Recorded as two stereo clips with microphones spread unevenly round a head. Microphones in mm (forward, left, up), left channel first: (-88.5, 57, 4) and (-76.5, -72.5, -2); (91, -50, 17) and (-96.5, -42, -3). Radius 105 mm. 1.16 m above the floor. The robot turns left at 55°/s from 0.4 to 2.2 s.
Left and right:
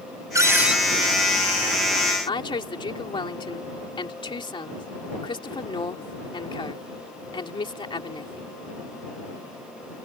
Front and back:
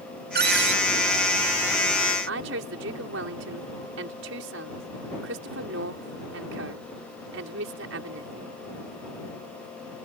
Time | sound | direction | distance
0.3 | a cupboard door | 150° right | ?
2.3 | a woman speaking | 145° left | ?